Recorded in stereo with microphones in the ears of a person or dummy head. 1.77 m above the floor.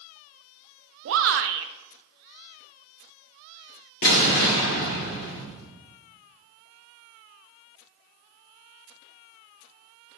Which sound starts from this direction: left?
An explosion, at 4.0 s.